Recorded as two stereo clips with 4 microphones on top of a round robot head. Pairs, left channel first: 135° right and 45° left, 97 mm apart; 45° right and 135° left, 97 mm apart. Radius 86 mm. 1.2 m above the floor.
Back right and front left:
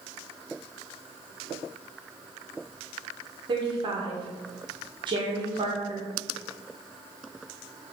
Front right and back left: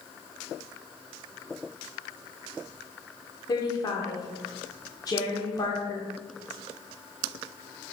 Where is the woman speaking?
5° left, 1.6 m.